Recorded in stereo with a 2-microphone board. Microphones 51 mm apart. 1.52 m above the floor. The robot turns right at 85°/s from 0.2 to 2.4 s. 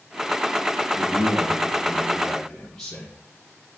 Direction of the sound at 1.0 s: 125° right.